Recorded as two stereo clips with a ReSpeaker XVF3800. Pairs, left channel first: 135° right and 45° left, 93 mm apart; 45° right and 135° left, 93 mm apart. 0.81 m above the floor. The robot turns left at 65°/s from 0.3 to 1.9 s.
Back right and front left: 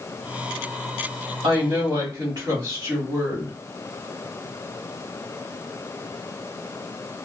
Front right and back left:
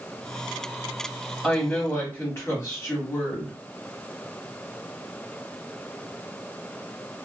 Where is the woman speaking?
45° left, 1.9 m; by 3.5 s 15° left, 1.9 m.